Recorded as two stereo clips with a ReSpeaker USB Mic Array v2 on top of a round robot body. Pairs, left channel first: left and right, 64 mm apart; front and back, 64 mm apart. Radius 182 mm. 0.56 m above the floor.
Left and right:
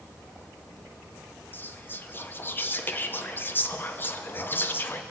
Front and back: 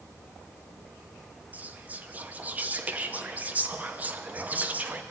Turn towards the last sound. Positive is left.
turn(degrees=130)